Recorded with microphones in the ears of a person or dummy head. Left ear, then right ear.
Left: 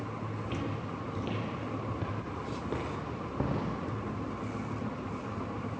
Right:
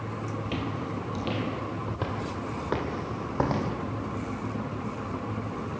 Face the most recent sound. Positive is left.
turn(degrees=-50)  # may be behind; listen again after turning